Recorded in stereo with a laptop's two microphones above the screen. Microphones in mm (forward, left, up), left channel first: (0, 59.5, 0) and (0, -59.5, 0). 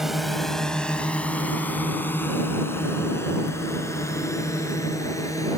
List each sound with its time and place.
0.0 s a drone: centre (ahead or behind); by 5.6 s 30° left (ahead or behind)